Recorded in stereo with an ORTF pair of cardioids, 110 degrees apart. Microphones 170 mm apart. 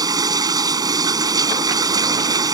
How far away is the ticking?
No ticking in this recording.